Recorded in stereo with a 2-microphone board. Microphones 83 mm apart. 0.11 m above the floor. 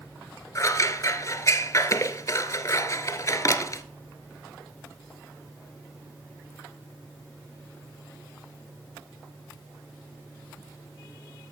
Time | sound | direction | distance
0.6 | scissors | 45° left (ahead or behind) | 0.6 m